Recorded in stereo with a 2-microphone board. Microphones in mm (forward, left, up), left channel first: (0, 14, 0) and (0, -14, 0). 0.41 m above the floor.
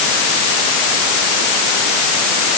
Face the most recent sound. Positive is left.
No sound to turn to.